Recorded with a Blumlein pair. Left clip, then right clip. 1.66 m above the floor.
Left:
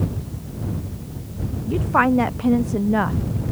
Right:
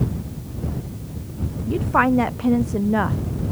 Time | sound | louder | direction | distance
1.7 | a woman speaking | even | straight ahead | ?